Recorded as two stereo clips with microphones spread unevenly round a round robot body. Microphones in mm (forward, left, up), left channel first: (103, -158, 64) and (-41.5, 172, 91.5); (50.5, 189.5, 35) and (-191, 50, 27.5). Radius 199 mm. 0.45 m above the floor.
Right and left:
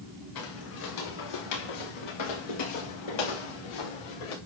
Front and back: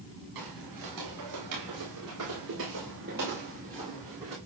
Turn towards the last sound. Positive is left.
turn(degrees=-70)